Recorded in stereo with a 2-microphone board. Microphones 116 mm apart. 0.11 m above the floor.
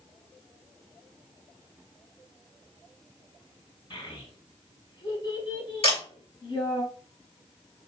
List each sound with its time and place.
3.9 s a child speaking: 45° left (ahead or behind), 2 m
5.8 s a camera shutter: 55° left (ahead or behind), 2.5 m